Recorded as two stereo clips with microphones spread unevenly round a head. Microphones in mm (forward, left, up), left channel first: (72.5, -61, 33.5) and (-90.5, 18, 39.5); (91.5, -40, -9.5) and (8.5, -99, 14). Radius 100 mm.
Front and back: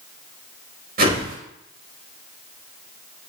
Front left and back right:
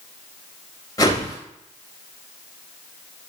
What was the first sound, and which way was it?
A whoosh, 110° left.